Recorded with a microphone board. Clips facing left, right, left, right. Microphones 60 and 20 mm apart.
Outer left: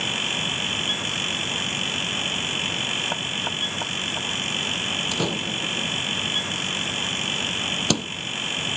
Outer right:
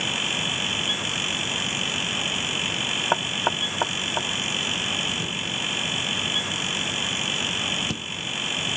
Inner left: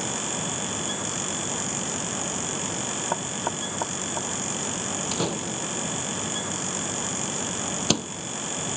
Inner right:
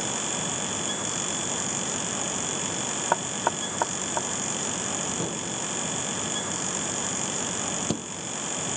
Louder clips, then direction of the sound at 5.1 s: Outer left 3 dB, inner left 3 dB; 85° left.